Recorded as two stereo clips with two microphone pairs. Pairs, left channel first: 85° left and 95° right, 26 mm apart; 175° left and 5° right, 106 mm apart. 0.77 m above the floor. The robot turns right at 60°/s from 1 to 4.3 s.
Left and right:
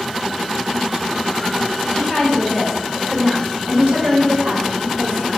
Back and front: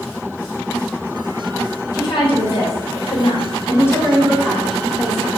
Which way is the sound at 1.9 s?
125° left.